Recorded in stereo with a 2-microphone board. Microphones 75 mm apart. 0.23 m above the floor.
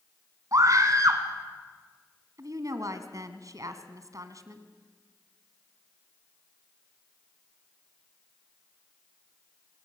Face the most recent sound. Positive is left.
turn(degrees=-50)  # may be behind; listen again after turning